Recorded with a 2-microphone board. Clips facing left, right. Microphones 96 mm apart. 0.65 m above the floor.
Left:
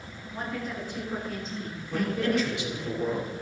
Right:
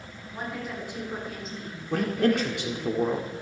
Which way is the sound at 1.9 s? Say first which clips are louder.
Right 3 dB; 55° right (ahead or behind).